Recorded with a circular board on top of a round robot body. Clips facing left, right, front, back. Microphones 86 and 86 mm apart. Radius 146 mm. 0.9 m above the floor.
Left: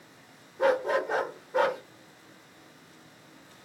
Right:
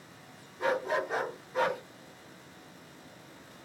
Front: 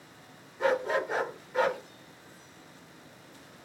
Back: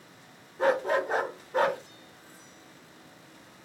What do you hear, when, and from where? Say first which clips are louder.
0.6 s a dog barking: left 5 dB, back 2 dB; 130° left, 0.6 m